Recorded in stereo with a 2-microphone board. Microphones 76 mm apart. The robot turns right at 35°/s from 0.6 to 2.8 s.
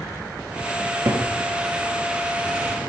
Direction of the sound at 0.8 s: 50° right (ahead or behind).